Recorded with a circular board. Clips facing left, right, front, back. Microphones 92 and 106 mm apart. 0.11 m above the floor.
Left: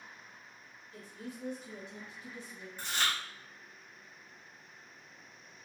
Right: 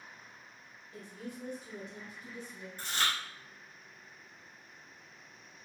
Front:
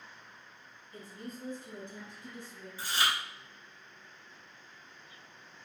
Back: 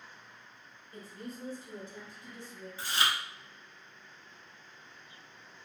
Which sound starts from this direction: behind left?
Chewing, at 2.8 s.